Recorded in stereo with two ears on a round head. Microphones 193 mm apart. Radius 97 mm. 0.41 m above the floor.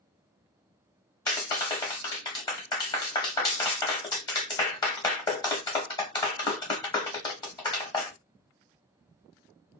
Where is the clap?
20° left (ahead or behind), 1.3 m.